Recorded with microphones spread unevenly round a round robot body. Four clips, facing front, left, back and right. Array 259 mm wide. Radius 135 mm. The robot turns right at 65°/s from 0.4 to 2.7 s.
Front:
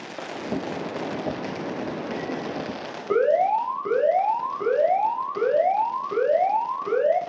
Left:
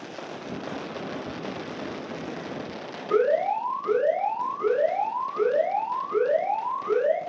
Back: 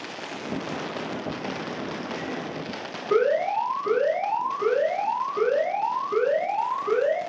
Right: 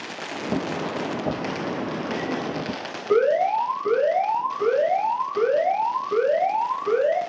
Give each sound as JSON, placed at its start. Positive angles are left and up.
{"t": 3.1, "sound": "an alarm", "azimuth_deg": -35, "distance_m": 4.5}